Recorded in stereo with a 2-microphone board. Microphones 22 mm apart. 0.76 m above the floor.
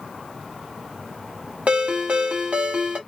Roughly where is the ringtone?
Right.